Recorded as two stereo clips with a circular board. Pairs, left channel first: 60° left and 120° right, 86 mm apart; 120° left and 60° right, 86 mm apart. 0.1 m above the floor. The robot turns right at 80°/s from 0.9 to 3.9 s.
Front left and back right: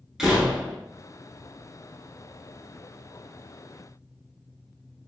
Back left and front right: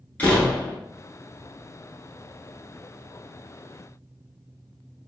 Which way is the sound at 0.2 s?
160° left.